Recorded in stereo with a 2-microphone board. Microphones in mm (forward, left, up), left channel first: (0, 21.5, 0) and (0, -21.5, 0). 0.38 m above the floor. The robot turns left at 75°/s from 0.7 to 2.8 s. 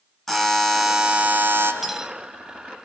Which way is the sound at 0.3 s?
5° left.